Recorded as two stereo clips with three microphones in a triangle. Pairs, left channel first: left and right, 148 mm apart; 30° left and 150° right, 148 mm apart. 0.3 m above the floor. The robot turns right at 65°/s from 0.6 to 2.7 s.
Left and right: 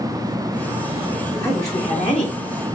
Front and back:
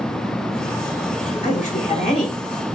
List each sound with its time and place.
1.4 s a woman speaking: 15° left, 1.4 m; by 2.8 s 100° left, 1.4 m